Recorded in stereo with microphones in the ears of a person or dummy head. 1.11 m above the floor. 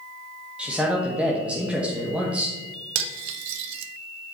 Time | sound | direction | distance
0.6 | a man speaking | 10° right (ahead or behind) | 1.2 m
3.0 | cutlery clinking | 75° right (ahead or behind) | 0.7 m